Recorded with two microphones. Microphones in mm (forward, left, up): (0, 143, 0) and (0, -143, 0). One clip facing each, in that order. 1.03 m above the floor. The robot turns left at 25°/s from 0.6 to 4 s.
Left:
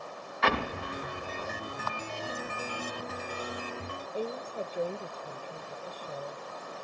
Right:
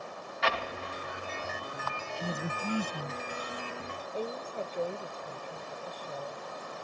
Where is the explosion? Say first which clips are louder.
Left 4 dB; 70° left (ahead or behind); by 1.8 s 50° left (ahead or behind).